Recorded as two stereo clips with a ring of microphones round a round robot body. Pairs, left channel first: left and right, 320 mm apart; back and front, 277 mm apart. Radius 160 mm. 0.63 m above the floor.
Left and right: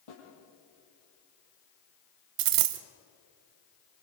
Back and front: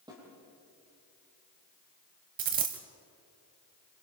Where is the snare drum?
75° left, 8 m.